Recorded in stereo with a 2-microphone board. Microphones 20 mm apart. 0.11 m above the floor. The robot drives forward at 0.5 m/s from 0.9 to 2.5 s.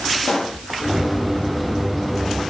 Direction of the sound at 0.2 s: 15° left (ahead or behind).